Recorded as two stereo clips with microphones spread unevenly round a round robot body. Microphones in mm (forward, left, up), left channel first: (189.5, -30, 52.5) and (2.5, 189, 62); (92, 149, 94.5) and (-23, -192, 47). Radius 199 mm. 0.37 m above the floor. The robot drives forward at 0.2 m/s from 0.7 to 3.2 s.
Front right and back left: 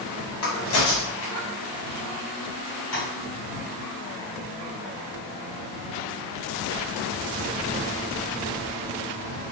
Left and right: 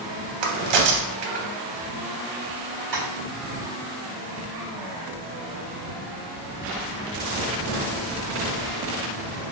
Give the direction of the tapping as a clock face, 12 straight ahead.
4 o'clock.